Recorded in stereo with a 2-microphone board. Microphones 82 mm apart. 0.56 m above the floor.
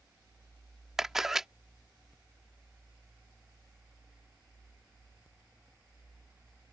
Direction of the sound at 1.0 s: 5° right (ahead or behind).